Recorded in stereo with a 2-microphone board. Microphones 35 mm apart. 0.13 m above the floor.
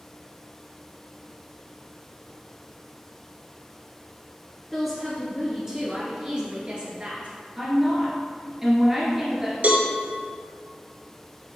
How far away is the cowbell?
About 1.1 m.